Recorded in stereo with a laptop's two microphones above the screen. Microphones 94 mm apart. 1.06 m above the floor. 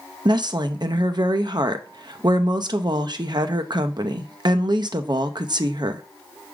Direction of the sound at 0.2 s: 50° right (ahead or behind).